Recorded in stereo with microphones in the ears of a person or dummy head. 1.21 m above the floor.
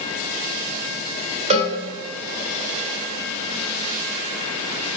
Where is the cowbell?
35° right (ahead or behind), 0.5 m.